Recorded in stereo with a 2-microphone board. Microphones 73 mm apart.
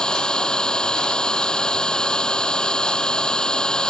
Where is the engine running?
10° left (ahead or behind).